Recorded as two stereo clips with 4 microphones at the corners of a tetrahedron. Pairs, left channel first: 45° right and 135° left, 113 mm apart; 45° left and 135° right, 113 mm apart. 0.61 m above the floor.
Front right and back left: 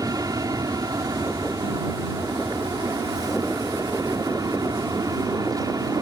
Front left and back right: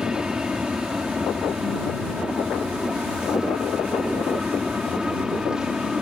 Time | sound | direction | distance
0.0 | an aircraft | 145° left | ?